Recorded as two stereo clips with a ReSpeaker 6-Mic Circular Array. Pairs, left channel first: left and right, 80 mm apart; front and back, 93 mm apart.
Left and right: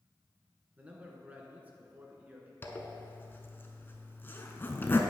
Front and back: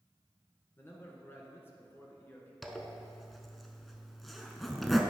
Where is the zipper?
90° left, 0.6 m.